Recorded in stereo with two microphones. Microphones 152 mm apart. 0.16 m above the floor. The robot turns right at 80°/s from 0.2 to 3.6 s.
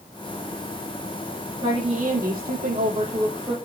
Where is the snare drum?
No snare drum in this recording.